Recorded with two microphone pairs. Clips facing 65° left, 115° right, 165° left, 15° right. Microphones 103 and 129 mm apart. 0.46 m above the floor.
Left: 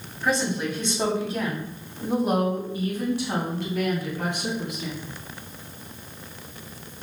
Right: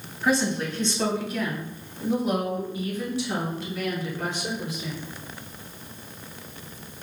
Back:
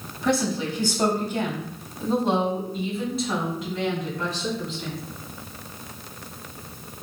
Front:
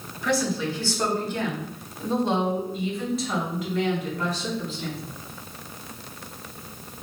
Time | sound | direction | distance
0.2 | a woman speaking | 165° left | 1.0 m